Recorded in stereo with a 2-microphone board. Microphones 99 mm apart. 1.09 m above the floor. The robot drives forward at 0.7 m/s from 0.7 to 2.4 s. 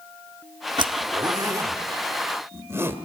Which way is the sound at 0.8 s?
50° right (ahead or behind).